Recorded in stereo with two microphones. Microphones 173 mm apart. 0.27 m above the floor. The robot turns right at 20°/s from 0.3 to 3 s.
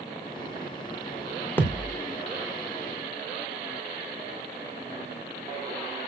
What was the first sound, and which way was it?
A thud, 10° left (ahead or behind).